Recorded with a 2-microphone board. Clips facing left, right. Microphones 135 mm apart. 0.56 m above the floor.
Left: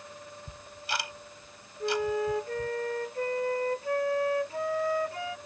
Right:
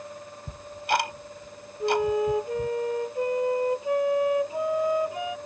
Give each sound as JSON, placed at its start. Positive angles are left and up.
{"t": 0.5, "sound": "ticking", "side_deg": -65}
{"t": 1.8, "sound": "a flute", "side_deg": -20}